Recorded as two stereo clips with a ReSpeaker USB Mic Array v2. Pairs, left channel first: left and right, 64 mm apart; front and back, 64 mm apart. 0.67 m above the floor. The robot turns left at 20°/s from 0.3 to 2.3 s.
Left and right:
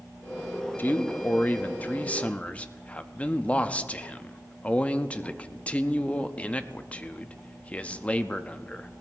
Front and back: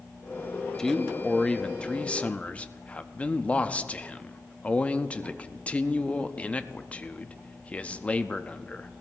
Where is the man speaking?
70° left, 0.6 m; by 8.9 s 40° left, 0.6 m.